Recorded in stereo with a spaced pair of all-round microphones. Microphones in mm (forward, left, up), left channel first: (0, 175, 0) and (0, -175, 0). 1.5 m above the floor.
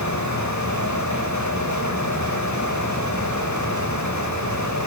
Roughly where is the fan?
Left.